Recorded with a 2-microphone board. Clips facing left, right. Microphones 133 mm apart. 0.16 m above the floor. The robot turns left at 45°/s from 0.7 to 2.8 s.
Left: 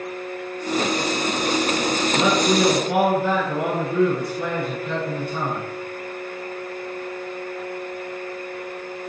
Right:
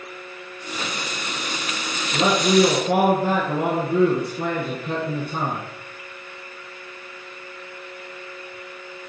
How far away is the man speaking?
About 1.7 m.